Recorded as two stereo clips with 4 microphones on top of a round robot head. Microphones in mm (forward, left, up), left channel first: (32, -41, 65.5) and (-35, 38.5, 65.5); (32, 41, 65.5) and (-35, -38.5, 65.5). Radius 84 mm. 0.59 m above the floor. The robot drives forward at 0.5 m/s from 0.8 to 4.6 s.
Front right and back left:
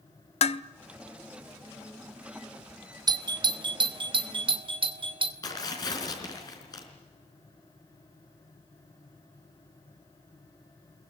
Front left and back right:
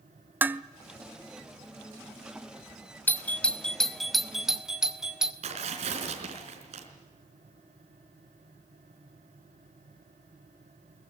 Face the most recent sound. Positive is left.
turn(degrees=-105)